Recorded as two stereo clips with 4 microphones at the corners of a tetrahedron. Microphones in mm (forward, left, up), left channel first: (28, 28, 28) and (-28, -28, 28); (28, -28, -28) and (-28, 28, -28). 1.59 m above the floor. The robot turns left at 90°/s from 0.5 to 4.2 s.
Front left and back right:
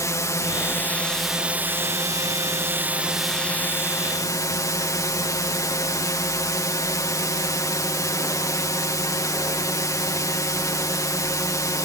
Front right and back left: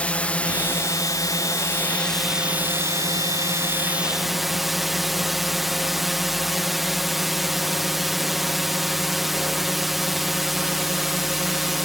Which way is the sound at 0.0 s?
20° left.